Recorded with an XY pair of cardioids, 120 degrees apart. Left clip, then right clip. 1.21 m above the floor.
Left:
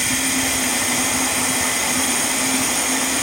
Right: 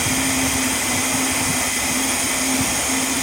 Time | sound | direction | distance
0.0 | running water | 20° left | 3.5 m